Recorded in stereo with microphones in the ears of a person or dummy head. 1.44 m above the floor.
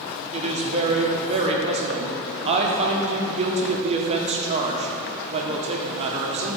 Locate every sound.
0.3 s a woman speaking: 40° right (ahead or behind), 1.1 m